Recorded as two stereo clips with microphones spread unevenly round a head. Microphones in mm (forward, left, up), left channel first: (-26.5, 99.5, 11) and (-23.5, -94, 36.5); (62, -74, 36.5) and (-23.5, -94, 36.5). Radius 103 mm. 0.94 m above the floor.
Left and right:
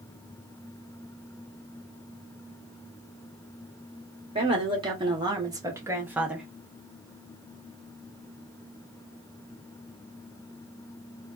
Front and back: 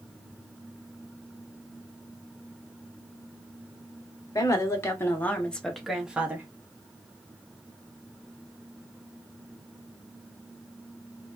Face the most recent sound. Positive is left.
turn(degrees=170)